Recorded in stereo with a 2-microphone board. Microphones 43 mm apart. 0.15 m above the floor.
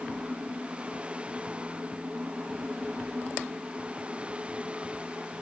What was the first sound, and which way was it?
Only background noise.